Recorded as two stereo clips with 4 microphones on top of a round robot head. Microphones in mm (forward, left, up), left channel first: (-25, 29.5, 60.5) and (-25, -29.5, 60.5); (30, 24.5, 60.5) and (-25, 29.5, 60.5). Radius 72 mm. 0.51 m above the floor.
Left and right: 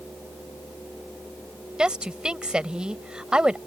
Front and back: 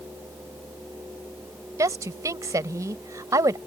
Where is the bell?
I don't hear a bell.